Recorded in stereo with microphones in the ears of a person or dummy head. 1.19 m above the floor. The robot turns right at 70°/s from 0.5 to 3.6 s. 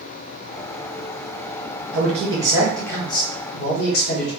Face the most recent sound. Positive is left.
turn(degrees=65)